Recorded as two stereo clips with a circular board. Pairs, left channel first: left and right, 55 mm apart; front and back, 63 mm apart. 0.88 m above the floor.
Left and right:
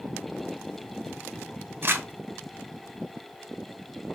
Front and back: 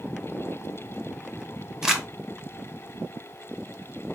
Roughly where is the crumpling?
Right.